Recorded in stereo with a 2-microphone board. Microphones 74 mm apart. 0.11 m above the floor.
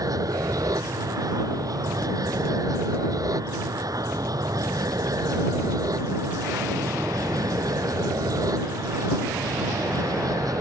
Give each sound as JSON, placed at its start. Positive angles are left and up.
{"t": 0.0, "sound": "an aircraft", "side_deg": -55}